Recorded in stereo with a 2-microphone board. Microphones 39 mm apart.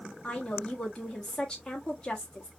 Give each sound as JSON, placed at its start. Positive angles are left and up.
{"t": 0.2, "sound": "a woman speaking", "side_deg": 15, "distance_m": 1.1}